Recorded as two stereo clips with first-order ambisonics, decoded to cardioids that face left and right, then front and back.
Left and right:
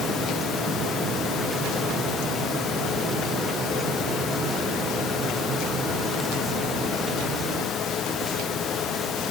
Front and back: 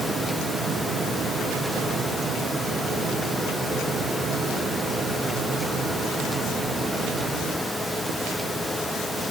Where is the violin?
No violin in this recording.